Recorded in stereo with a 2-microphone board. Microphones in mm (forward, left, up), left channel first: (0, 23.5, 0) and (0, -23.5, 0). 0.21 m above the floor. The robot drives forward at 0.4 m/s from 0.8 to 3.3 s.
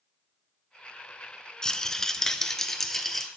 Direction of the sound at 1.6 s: 15° left (ahead or behind).